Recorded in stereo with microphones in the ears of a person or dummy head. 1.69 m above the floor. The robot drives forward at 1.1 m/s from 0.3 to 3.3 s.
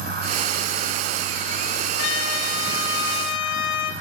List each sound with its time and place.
2.0 s a trumpet: 85° left, 3 m; by 3.9 s 60° left (ahead or behind), 3 m